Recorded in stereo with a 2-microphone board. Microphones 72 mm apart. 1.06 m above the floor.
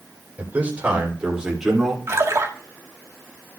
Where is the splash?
40° right (ahead or behind), 1.5 m.